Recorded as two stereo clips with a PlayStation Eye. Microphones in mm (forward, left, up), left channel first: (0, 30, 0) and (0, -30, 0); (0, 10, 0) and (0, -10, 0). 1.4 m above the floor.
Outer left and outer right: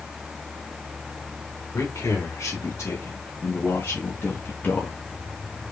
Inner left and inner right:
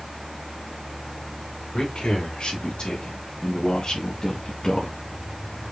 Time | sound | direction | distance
1.7 | a man speaking | 55° left (ahead or behind) | 4 m